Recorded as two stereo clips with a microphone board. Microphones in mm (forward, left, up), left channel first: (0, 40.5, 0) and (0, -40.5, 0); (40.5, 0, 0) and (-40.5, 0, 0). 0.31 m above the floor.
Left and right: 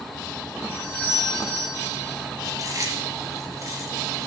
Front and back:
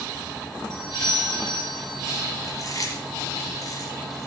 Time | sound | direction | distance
0.7 | a doorbell | 25° left | 4.5 m
2.4 | chewing | 45° right | 3.5 m